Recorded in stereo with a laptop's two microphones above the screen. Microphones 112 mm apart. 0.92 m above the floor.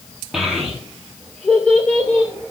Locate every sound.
0.3 s a child speaking: 5° right (ahead or behind), 1.1 m; by 2.3 s 15° left (ahead or behind), 2.5 m